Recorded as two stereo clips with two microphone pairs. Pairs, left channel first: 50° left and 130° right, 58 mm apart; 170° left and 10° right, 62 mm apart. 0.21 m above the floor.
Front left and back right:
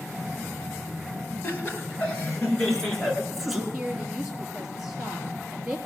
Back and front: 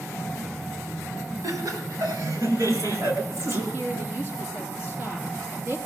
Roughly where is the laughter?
Ahead.